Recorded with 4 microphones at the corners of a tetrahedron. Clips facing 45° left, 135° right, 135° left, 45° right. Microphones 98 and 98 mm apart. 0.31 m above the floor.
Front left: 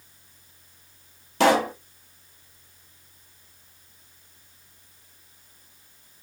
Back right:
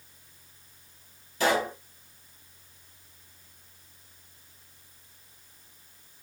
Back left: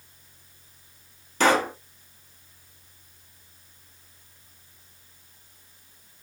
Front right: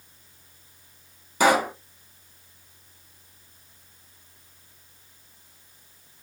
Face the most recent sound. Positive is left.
turn(degrees=35)